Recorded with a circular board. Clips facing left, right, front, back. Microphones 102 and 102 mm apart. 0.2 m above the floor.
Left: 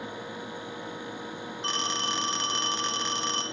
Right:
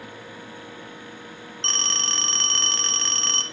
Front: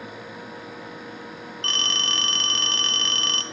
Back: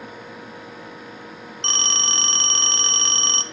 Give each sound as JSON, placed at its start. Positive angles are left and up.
{"t": 1.6, "sound": "a phone ringing", "azimuth_deg": 155, "distance_m": 0.6}